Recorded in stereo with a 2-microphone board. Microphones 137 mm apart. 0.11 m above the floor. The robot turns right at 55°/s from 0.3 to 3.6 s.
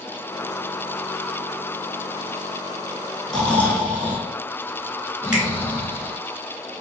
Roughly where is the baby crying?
I don't hear a baby crying.